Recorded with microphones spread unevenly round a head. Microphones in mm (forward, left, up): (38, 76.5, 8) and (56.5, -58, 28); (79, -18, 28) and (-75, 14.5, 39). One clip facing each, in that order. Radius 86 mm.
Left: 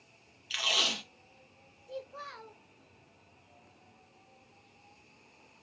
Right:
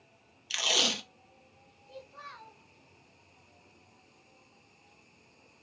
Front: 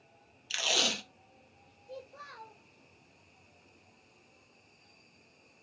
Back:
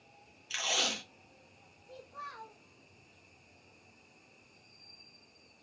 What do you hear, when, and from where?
0.5 s tape being pulled: 40° right, 0.7 m
1.9 s a child speaking: 55° left, 1.1 m